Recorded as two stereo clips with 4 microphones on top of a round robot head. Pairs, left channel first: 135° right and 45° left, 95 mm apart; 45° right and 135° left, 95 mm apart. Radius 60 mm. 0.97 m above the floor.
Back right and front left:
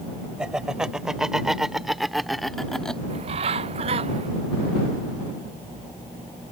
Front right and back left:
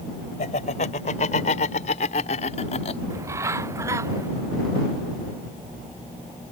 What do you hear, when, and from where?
0.4 s laughter: 40° right; by 3.0 s 55° right
3.1 s a bird: 70° left